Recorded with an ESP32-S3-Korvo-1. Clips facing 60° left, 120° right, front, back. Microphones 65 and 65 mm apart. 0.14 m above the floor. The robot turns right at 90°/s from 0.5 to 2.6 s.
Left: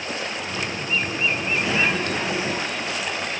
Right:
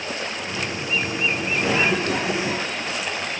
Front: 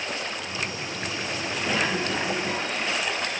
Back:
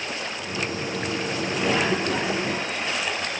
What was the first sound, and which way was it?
A cough, 175° right.